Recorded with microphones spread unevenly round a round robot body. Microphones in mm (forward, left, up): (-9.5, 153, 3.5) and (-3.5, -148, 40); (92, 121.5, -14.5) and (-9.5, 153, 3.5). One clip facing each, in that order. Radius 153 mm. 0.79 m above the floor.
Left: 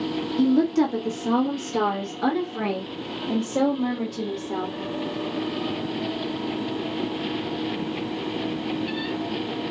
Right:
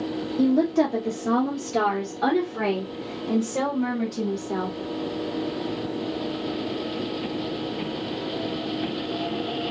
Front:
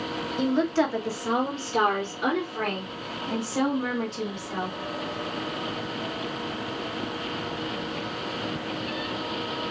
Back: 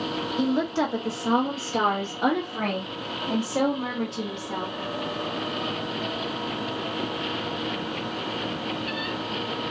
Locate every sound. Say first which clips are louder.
0.4 s a woman speaking: left 1 dB, front 1 dB; 70° left, 1.0 m; by 4.8 s 165° right, 2.5 m